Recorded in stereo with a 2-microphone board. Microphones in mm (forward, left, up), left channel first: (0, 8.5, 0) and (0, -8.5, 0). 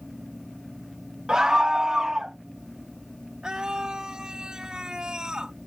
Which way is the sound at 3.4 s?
50° right (ahead or behind).